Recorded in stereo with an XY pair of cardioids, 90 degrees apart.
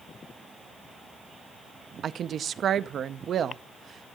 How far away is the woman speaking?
About 0.6 m.